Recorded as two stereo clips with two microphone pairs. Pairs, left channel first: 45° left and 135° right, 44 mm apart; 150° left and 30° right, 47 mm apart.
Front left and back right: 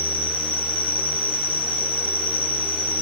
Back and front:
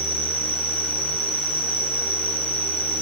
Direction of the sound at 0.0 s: 130° right.